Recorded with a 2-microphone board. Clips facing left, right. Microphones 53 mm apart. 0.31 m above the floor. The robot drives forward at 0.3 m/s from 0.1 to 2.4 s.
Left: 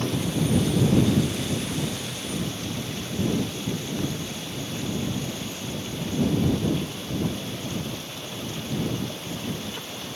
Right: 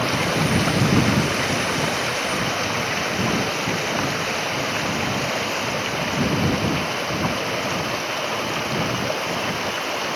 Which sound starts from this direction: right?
Running water, at 0.0 s.